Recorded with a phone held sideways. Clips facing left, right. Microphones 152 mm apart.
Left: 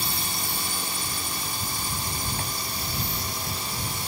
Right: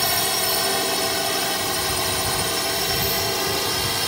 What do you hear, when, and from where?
0.0 s a drone: 65° right (ahead or behind)